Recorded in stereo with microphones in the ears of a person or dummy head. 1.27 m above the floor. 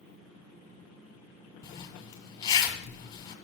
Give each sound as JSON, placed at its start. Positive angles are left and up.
{"t": 1.6, "sound": "a zipper", "side_deg": 20, "distance_m": 1.9}